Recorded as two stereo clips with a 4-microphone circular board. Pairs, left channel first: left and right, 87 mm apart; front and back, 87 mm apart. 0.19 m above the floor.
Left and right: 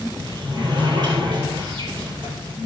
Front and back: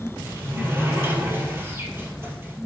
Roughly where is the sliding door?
Behind right.